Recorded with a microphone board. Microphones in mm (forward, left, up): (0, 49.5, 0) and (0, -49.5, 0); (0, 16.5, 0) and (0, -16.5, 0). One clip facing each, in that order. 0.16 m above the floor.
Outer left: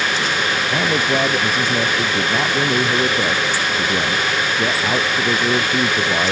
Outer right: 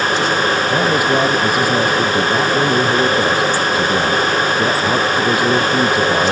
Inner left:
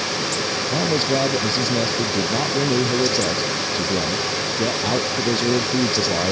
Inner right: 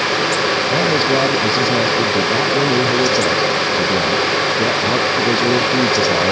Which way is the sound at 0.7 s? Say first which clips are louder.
Outer right 2 dB, inner right 3 dB; 10° right (ahead or behind).